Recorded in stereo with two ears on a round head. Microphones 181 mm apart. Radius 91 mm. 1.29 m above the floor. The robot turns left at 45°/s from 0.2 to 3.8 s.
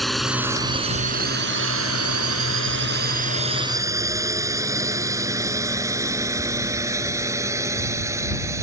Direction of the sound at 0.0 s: Centre (ahead or behind).